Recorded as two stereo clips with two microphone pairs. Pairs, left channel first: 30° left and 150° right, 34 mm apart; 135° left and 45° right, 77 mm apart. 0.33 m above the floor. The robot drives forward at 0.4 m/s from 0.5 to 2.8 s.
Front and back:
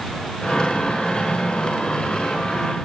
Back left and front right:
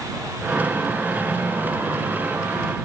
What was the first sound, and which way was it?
Only background noise.